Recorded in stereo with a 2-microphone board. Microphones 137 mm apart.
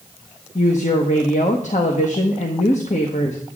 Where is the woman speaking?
60° left (ahead or behind), 1.2 m.